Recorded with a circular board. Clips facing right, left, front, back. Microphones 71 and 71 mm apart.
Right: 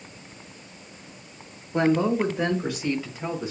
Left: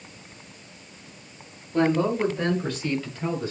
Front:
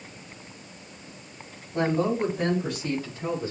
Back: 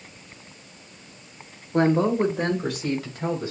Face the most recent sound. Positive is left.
turn(degrees=-170)